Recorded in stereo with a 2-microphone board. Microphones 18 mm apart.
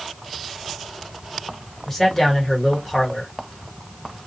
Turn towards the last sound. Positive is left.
turn(degrees=20)  # may be behind; listen again after turning